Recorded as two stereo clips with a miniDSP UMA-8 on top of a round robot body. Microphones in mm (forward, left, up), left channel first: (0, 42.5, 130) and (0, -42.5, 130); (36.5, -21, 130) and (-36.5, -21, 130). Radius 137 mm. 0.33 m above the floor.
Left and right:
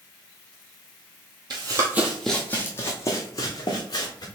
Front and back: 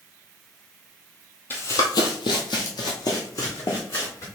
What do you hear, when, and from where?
1.5 s running footsteps: 60° right, 0.6 m; by 4.3 s 45° left, 1.8 m